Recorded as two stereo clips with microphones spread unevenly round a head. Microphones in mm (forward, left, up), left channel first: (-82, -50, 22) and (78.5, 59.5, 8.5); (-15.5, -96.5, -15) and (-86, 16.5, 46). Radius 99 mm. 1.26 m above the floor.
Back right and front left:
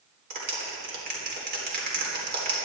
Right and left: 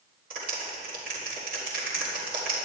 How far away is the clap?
About 3.5 m.